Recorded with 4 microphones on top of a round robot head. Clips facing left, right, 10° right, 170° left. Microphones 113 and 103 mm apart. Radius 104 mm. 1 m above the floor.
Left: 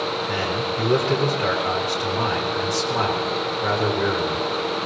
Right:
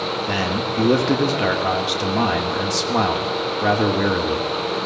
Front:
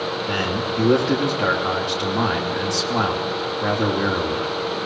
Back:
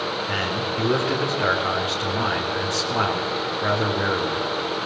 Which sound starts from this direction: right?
A man speaking, at 0.3 s.